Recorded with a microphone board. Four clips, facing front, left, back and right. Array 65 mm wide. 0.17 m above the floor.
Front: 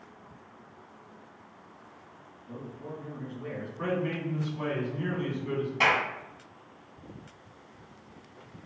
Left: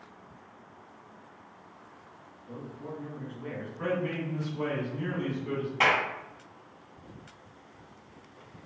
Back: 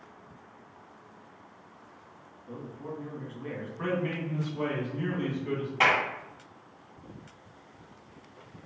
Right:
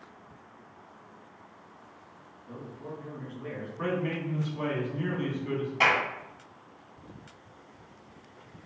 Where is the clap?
150° left, 1.3 m.